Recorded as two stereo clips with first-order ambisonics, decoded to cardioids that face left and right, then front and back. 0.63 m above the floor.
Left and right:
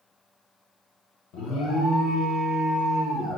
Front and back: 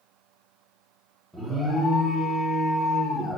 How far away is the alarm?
About 1.5 m.